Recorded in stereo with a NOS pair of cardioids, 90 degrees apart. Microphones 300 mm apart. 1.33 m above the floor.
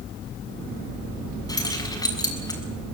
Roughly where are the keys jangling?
Ahead.